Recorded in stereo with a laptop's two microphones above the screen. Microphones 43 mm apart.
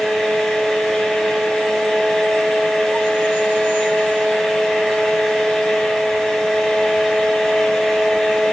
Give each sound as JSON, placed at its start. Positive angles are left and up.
{"t": 0.0, "sound": "a fan", "side_deg": 10, "distance_m": 3.0}